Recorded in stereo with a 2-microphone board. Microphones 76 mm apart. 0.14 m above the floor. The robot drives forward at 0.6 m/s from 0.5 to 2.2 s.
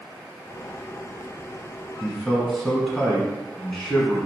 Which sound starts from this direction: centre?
A man speaking, at 2.0 s.